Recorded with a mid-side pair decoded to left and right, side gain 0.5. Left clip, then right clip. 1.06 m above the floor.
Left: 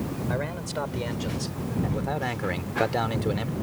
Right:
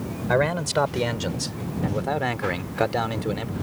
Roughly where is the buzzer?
No buzzer in this recording.